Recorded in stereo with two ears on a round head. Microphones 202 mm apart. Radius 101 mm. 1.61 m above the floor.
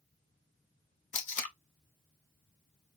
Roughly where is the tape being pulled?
Left.